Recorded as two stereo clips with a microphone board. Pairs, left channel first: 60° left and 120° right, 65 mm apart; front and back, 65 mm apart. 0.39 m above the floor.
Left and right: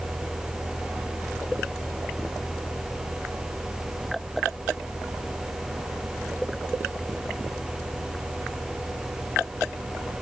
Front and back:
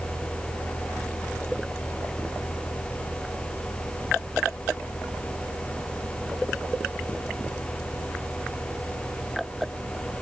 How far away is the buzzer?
I don't hear a buzzer.